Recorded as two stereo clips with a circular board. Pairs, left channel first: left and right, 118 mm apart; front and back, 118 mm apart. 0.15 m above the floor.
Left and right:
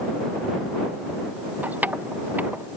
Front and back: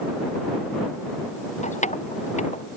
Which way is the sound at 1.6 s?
15° right.